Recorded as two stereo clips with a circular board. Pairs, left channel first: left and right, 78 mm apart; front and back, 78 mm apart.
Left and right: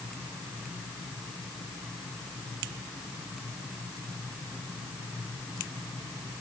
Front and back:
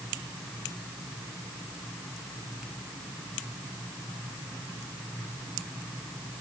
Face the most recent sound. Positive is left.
No sound to turn to.